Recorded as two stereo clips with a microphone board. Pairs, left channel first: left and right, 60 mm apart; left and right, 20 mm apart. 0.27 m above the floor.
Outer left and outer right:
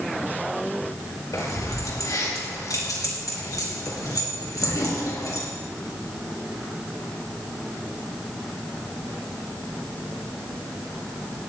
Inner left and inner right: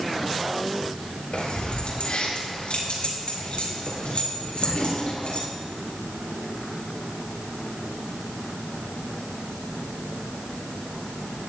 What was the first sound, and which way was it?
Keys jangling, 65° left (ahead or behind).